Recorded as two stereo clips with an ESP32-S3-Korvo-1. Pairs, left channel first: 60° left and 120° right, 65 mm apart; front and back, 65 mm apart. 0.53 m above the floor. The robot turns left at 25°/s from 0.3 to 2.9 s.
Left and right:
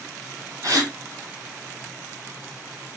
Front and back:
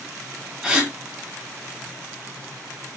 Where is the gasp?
100° right, 0.8 m; by 0.9 s 110° right, 0.8 m.